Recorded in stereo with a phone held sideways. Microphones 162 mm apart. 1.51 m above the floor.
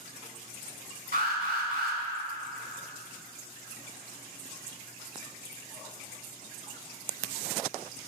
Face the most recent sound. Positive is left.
turn(degrees=-65)  # may be behind; listen again after turning